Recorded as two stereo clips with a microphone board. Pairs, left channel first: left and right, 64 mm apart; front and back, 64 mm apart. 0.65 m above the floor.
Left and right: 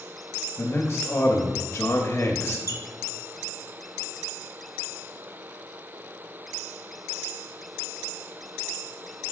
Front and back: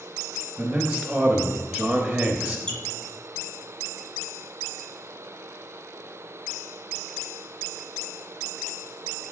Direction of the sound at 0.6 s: 100° left.